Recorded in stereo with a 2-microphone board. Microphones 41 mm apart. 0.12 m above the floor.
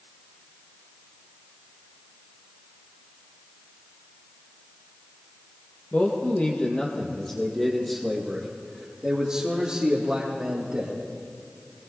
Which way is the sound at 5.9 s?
45° left (ahead or behind).